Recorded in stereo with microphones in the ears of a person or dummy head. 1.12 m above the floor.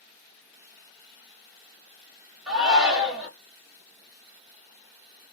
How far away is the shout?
About 1.5 m.